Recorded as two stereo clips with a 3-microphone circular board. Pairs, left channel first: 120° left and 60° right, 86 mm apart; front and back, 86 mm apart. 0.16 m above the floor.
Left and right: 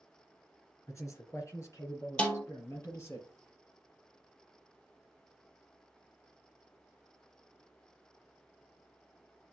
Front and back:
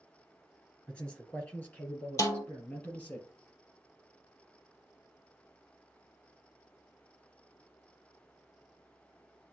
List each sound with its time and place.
0.9 s a man speaking: 70° left, 3.5 m; by 3.2 s 65° left, 4.5 m
2.2 s a snare drum: 45° left, 1.9 m